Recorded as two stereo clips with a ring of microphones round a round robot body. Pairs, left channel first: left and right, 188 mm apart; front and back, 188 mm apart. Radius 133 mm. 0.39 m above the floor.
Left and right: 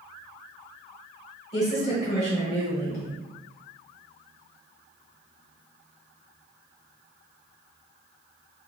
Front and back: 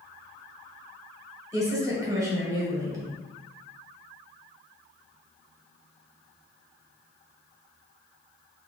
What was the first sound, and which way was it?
A woman speaking, 120° left.